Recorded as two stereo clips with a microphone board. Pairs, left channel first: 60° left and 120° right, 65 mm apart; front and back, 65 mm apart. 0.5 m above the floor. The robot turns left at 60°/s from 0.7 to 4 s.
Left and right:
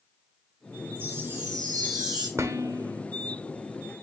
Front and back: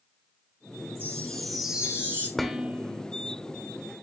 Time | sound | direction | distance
0.9 | a chime | 55° right | 3.5 m
2.4 | dishes clattering | 85° right | 1.0 m